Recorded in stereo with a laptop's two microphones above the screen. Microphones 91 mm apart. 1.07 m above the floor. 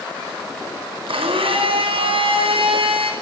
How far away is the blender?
About 5 m.